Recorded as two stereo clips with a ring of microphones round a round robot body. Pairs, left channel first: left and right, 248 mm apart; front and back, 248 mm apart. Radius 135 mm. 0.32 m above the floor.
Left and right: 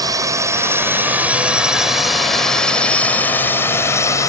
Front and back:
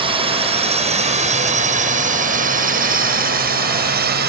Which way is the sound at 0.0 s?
145° right.